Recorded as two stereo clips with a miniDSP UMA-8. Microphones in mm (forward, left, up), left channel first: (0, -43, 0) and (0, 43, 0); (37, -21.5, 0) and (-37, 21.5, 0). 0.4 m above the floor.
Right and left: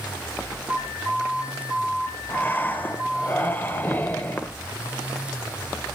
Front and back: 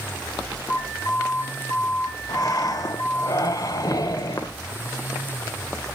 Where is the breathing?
30° right, 1.0 m.